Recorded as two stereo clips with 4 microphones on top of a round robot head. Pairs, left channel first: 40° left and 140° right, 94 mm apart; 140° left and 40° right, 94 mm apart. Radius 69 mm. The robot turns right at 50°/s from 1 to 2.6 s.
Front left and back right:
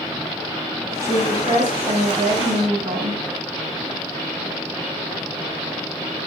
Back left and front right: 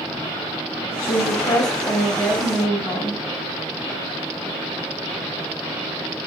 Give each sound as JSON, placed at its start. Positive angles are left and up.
{"t": 1.0, "sound": "a woman speaking", "azimuth_deg": 160, "distance_m": 3.5}